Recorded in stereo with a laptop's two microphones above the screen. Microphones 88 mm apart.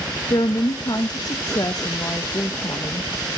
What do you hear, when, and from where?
0.3 s a woman speaking: 50° left (ahead or behind), 0.5 m